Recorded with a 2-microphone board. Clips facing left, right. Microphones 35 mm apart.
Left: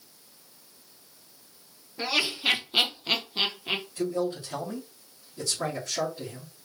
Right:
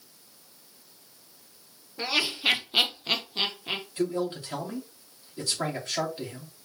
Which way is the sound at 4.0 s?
45° right (ahead or behind).